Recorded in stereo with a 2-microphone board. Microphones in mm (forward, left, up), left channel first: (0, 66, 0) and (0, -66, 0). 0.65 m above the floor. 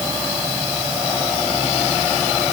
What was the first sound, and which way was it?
Only background noise.